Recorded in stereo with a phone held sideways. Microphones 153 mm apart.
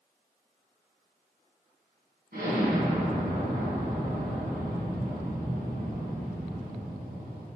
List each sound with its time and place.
2.3 s an explosion: 70° right (ahead or behind), 3.5 m